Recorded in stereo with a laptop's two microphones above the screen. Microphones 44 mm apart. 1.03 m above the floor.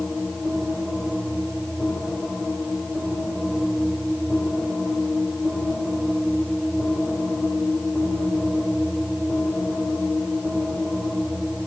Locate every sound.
Only background noise.